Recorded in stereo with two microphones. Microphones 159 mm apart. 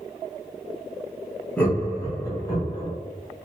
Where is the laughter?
10° left (ahead or behind), 1.1 m; by 2.9 s 25° left (ahead or behind), 1.5 m.